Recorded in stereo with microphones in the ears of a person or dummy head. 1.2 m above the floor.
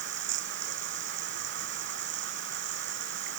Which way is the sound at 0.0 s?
60° right (ahead or behind).